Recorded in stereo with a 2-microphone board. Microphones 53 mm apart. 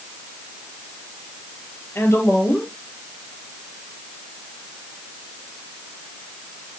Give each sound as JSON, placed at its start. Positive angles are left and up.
{"t": 1.9, "sound": "a woman speaking", "side_deg": 45, "distance_m": 2.5}